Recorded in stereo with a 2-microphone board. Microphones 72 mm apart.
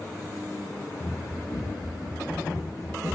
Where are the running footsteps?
55° left (ahead or behind), 3.5 m; by 3.2 s 40° left (ahead or behind), 4.5 m.